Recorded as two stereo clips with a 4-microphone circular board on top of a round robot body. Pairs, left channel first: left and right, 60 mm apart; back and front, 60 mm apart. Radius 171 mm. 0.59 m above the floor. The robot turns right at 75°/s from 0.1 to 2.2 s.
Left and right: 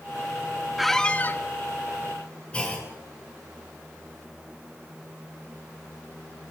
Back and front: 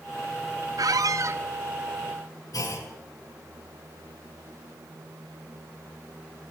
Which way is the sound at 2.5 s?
160° left.